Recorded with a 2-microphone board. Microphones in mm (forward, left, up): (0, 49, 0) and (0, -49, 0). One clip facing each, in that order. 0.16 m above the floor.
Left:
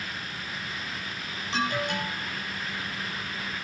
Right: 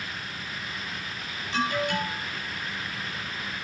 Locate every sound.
1.5 s an alarm: 25° left (ahead or behind), 5.5 m